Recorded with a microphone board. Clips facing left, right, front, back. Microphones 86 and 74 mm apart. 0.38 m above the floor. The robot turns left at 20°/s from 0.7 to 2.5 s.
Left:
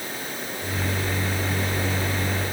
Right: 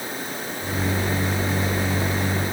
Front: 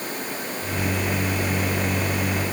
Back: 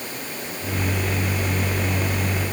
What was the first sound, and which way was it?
Only background noise.